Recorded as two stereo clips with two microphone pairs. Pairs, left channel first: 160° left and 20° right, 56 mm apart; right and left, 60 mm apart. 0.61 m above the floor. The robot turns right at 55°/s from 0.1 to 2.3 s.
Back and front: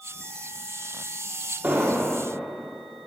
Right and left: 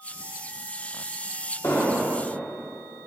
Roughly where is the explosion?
Right.